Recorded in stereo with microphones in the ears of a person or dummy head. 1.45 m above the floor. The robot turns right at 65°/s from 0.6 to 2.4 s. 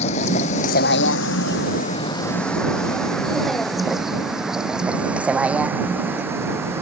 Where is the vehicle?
45° left (ahead or behind); by 6.8 s 15° right (ahead or behind).